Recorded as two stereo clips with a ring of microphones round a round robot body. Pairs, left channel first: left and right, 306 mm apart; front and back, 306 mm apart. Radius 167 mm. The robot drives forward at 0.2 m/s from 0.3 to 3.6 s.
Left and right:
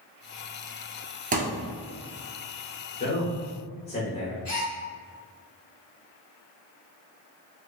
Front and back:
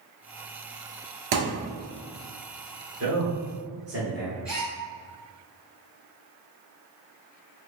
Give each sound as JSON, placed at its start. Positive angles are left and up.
{"t": 1.3, "sound": "a thud", "azimuth_deg": -155, "distance_m": 1.4}
{"t": 3.0, "sound": "a man speaking", "azimuth_deg": 150, "distance_m": 1.4}
{"t": 4.5, "sound": "a gasp", "azimuth_deg": 95, "distance_m": 1.2}